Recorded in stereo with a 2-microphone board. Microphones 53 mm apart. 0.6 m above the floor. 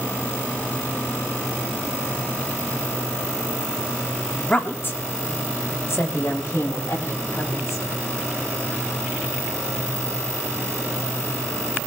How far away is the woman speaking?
About 1.0 m.